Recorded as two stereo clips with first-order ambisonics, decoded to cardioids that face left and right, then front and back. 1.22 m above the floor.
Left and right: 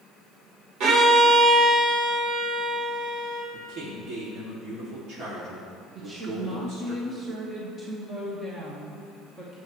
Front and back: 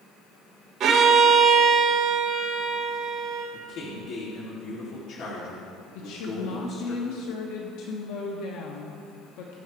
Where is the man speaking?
45° right, 2.5 m.